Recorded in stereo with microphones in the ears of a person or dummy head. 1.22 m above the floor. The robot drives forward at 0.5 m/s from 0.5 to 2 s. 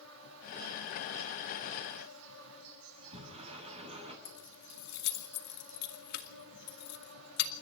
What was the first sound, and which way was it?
An insect, 85° right.